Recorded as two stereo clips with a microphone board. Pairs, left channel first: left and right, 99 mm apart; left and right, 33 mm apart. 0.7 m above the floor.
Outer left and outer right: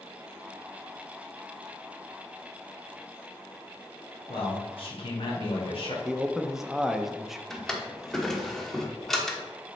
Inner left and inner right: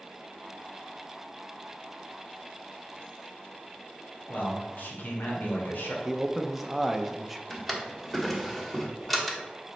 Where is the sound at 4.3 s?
65° left (ahead or behind), 1.9 m.